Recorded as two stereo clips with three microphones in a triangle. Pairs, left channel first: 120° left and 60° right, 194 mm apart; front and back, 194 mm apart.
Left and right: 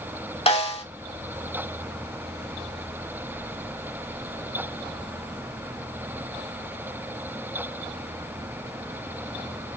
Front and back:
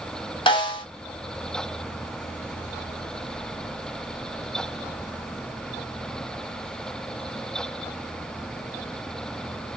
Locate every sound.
0.5 s a snare drum: 60° left, 1.4 m